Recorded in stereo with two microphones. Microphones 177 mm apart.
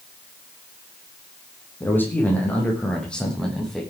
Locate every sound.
1.8 s a man speaking: 15° left (ahead or behind), 7.5 m; by 3.8 s centre (ahead or behind), 8 m